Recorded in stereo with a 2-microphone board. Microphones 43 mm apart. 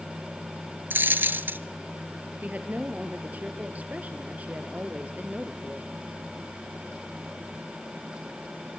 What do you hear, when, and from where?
0.9 s a dropped coin: 55° right (ahead or behind), 1.0 m
2.4 s a woman speaking: 40° right (ahead or behind), 3 m